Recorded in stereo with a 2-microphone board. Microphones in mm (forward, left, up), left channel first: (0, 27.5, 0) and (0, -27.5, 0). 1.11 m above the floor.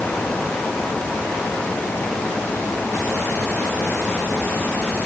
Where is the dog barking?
No dog barking in this recording.